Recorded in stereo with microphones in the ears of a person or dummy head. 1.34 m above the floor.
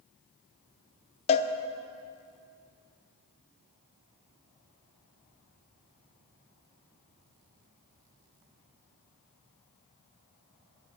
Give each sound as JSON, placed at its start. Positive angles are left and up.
{"t": 1.3, "sound": "a cowbell", "side_deg": 35, "distance_m": 0.7}